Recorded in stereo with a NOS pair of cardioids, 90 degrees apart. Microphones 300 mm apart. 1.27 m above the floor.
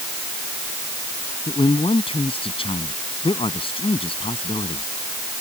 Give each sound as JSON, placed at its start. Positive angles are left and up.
{"t": 1.5, "sound": "a man speaking", "azimuth_deg": 20}